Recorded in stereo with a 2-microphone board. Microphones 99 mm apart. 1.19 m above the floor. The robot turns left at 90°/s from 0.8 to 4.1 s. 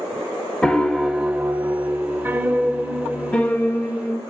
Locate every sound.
0.6 s a piano: 10° left (ahead or behind), 0.9 m; by 4.2 s 25° left (ahead or behind), 0.9 m